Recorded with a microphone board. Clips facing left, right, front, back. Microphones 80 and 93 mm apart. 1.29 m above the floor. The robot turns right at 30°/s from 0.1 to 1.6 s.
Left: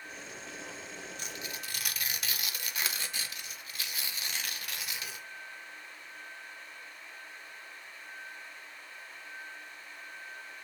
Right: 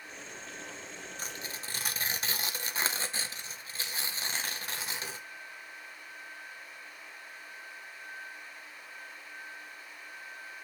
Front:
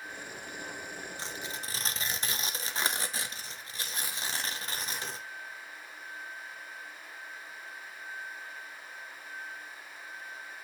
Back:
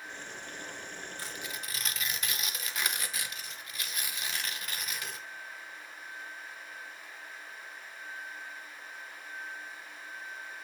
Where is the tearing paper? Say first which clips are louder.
Even, front 1 dB; 60° right, 0.6 m; by 5.2 s 45° right, 0.6 m.